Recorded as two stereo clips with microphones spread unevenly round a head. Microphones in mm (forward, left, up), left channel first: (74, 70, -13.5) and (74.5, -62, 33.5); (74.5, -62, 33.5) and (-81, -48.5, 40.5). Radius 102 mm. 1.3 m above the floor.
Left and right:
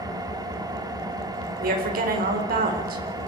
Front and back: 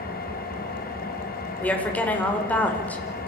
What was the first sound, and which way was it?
An engine running, 30° right.